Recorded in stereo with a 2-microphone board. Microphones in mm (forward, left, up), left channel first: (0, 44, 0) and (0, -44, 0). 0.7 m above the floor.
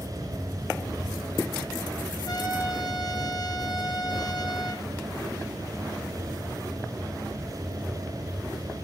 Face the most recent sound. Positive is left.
turn(degrees=50)  # may be behind; listen again after turning